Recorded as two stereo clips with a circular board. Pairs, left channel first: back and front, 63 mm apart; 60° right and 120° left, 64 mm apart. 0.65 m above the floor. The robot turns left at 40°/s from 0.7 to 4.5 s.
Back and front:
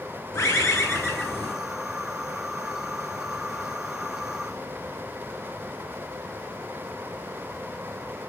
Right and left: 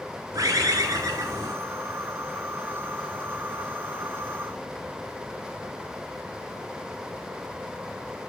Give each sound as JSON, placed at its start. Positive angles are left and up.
{"t": 0.3, "sound": "a bird", "azimuth_deg": 145, "distance_m": 2.5}